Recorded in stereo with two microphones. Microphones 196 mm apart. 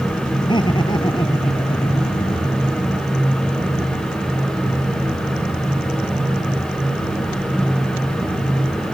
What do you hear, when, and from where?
0.4 s laughter: 20° left (ahead or behind)